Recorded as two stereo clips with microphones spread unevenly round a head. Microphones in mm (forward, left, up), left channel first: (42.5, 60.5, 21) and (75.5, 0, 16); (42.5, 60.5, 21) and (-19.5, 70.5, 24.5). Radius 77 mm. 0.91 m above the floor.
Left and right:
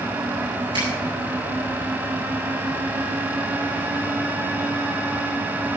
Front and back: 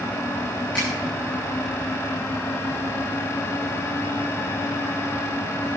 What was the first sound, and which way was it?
A finger snap, 90° right.